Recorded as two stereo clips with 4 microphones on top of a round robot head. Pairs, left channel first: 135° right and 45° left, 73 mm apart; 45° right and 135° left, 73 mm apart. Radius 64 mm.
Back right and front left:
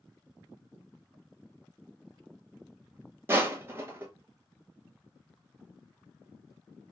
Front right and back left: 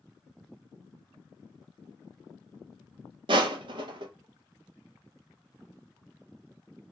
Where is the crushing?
105° left, 0.7 m.